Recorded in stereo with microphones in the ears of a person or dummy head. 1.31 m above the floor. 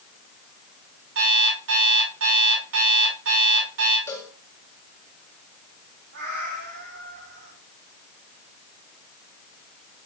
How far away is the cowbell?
About 1.9 m.